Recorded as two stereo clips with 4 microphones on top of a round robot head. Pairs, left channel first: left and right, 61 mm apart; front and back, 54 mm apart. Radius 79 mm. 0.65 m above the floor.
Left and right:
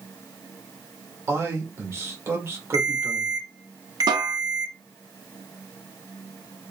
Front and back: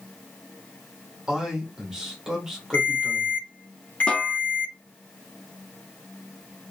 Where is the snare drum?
75° right, 0.7 m.